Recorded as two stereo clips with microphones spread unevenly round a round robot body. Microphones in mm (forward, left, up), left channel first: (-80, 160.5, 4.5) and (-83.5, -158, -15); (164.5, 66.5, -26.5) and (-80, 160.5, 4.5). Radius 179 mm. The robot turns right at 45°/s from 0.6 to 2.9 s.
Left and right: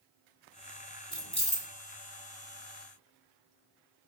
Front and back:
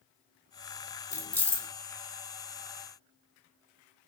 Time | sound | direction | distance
1.1 | keys jangling | 25° left | 0.5 m